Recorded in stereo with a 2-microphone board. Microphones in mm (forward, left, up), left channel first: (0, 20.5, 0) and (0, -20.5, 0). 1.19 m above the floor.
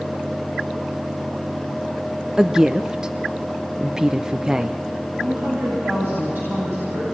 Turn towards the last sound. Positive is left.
turn(degrees=-70)  # may be behind; listen again after turning